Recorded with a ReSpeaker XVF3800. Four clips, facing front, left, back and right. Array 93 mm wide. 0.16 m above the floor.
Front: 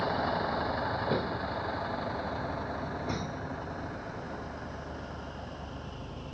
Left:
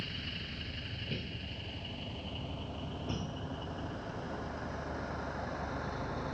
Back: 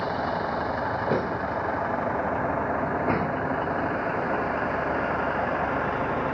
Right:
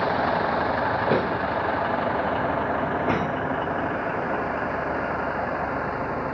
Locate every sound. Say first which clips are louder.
0.0 s a vehicle: right 22 dB, back 3 dB; 95° right; by 6.3 s 145° right